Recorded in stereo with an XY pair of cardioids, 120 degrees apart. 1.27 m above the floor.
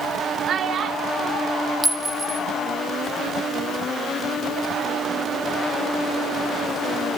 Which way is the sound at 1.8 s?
10° right.